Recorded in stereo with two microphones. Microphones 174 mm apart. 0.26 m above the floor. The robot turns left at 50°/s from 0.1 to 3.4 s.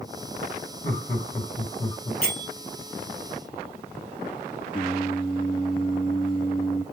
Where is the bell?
60° left (ahead or behind), 1.8 m; by 2.5 s 50° left (ahead or behind), 1.8 m.